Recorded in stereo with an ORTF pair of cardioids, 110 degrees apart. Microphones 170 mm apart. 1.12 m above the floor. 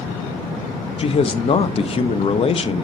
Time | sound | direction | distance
1.0 | a man speaking | 35° left | 0.9 m